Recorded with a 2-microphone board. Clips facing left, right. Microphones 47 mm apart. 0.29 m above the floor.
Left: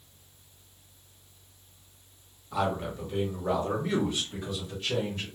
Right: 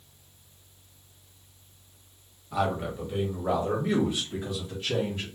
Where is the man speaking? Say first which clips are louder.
Right 1 dB; centre (ahead or behind), 1.5 m; by 5.3 s 20° right (ahead or behind), 2 m.